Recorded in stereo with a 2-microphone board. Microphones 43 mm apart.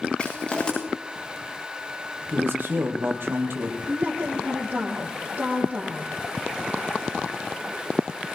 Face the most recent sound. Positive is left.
turn(degrees=-35)  # may be behind; listen again after turning